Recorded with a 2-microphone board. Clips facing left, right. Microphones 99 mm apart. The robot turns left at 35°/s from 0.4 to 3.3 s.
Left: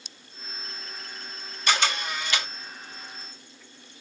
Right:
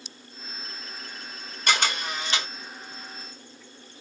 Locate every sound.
1.7 s a camera shutter: 50° right (ahead or behind), 1.9 m; by 2.5 s 25° right (ahead or behind), 1.9 m